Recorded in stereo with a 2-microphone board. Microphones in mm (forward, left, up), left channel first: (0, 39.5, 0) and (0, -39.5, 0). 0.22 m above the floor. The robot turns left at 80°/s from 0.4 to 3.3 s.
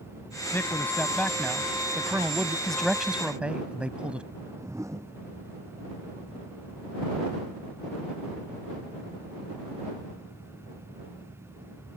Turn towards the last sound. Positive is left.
turn(degrees=-40)  # may be behind; listen again after turning